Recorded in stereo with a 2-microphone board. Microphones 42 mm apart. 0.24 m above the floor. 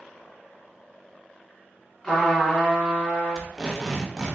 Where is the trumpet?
10° left (ahead or behind), 1.7 m.